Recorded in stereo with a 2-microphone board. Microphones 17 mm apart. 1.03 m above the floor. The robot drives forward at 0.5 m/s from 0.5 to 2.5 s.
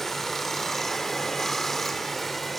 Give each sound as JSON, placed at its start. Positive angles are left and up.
{"t": 0.0, "sound": "running water", "side_deg": 15, "distance_m": 0.8}